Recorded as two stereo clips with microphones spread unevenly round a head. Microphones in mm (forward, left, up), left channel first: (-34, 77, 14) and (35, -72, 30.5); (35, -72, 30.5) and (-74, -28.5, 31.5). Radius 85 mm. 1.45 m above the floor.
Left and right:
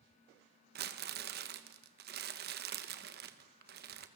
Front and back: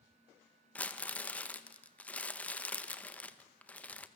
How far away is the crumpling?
About 1.4 m.